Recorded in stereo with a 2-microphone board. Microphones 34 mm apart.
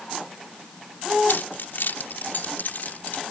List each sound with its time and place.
1.3 s keys jangling: 80° left; by 3.2 s 55° left (ahead or behind)